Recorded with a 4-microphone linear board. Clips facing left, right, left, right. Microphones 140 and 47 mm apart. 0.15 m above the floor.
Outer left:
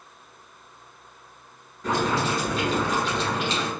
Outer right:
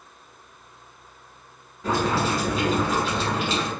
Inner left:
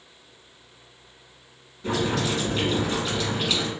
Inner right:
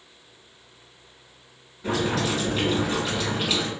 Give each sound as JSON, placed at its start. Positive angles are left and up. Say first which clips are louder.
{"t": 1.8, "sound": "boiling", "louder": "outer right 1 dB, even", "side_deg": -10, "distance_m": 1.4}